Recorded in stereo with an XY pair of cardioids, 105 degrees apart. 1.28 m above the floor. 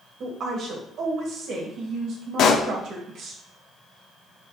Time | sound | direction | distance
0.2 | a woman speaking | 65° right | 1.5 m
2.4 | a pop | 65° left | 0.6 m